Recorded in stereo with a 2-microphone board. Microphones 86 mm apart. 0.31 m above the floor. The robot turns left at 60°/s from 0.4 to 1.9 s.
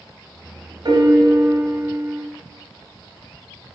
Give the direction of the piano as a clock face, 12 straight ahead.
3 o'clock.